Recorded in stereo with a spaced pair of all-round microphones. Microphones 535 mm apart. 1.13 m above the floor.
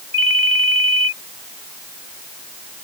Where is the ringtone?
40° right (ahead or behind).